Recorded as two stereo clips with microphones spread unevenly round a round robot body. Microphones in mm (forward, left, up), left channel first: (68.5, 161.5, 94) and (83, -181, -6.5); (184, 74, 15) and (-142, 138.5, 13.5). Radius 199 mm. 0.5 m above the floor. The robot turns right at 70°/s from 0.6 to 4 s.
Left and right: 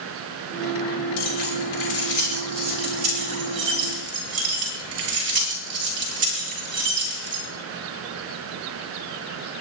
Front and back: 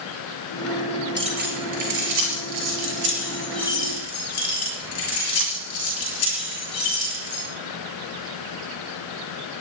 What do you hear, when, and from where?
1.2 s keys jangling: 90° left, 7.5 m; by 7.4 s 70° right, 7.5 m